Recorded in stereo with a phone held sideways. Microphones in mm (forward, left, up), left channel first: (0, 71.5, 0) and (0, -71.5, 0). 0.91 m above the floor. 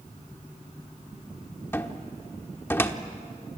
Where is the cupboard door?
15° left (ahead or behind), 1.1 m.